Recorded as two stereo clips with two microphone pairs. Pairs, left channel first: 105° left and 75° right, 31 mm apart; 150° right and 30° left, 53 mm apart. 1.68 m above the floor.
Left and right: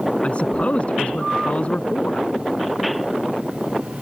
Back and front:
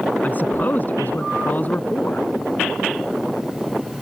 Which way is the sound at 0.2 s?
150° left.